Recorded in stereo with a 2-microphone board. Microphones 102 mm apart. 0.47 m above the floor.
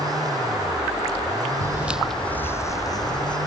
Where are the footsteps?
30° right (ahead or behind); by 3.4 s 40° left (ahead or behind).